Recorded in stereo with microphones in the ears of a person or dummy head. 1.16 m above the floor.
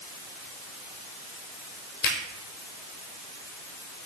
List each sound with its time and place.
2.0 s a finger snap: 65° left (ahead or behind), 4.5 m